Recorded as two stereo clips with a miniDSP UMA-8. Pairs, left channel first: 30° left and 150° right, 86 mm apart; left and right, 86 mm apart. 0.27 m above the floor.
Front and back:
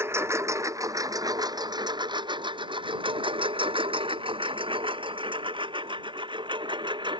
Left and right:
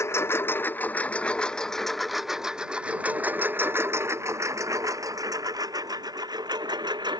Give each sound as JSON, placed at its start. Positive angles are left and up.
{"t": 0.0, "sound": "a lawn mower", "azimuth_deg": 150}